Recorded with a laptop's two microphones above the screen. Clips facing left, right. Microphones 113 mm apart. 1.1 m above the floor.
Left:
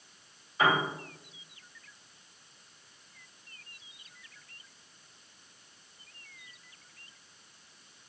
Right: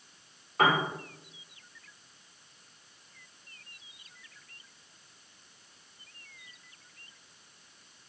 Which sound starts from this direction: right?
A piano, at 0.6 s.